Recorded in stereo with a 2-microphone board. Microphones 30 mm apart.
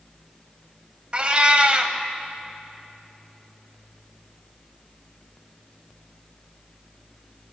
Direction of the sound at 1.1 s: 35° right (ahead or behind).